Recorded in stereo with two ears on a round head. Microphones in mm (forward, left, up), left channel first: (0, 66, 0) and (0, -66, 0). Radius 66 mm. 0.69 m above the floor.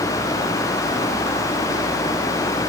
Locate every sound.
Only background noise.